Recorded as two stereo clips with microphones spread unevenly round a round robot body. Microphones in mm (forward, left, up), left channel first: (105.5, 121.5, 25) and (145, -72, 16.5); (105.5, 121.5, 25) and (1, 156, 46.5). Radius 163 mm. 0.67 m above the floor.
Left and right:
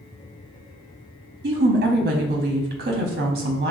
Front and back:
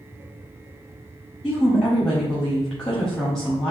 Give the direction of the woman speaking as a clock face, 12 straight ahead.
3 o'clock.